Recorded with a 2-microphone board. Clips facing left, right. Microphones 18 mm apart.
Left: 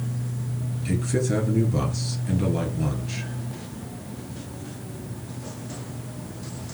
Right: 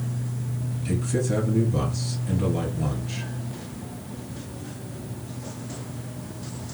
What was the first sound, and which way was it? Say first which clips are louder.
A man speaking: left 1 dB; 10° left (ahead or behind).